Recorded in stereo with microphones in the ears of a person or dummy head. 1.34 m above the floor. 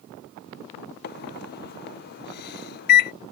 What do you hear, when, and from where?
1.0 s a microwave: 55° left (ahead or behind)